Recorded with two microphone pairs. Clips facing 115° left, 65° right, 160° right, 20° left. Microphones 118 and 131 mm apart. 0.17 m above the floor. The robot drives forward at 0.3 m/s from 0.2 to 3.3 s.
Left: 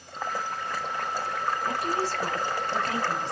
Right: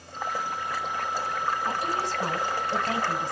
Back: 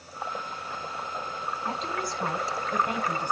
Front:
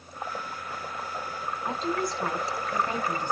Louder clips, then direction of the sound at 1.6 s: Left 1 dB, front 5 dB; 60° right.